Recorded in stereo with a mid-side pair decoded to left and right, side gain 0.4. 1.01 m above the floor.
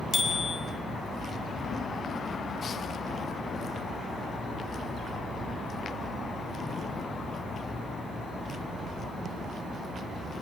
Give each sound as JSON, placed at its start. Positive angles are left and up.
{"t": 0.1, "sound": "a bicycle bell", "azimuth_deg": 50, "distance_m": 3.0}